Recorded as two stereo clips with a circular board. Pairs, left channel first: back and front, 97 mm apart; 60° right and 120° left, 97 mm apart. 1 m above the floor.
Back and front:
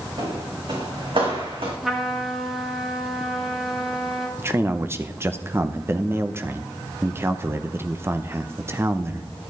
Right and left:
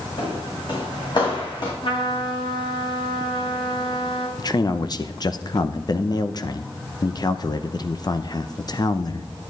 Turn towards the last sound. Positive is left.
turn(degrees=-50)